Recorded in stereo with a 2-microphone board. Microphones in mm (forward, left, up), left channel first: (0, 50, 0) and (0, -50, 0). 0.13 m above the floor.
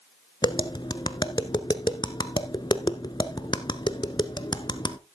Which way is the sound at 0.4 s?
45° left (ahead or behind).